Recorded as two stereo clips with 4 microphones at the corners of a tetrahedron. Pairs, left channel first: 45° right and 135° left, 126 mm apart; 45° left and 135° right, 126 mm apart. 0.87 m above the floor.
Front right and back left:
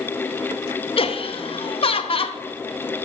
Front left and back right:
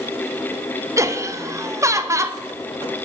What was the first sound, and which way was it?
Laughter, 75° right.